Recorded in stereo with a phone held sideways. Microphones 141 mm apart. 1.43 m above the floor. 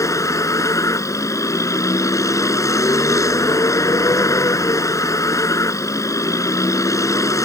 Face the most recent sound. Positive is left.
turn(degrees=20)  # may be behind; listen again after turning